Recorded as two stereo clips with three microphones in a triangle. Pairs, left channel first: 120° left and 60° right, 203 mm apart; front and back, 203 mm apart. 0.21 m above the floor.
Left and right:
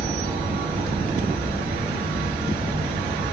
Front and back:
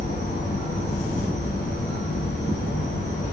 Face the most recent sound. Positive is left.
turn(degrees=-15)